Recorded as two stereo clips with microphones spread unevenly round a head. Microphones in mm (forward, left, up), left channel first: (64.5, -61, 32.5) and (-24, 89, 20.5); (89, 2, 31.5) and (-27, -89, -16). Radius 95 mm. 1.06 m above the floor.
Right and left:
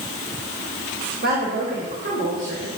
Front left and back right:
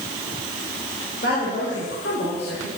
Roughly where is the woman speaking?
Left.